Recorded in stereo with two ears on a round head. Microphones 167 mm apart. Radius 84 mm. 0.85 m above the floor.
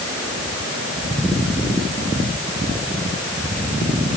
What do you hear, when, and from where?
Only background noise.